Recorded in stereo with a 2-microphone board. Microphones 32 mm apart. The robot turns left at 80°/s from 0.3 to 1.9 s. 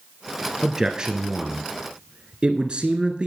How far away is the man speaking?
About 1.4 m.